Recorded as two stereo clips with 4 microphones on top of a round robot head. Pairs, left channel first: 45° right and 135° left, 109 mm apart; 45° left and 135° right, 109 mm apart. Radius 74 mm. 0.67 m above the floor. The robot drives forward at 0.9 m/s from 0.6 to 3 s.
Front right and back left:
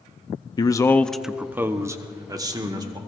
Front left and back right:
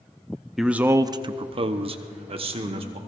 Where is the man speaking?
55° right, 0.6 m; by 3.0 s 170° right, 2 m.